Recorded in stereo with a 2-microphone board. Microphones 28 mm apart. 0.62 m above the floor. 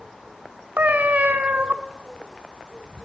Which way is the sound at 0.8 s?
75° right (ahead or behind).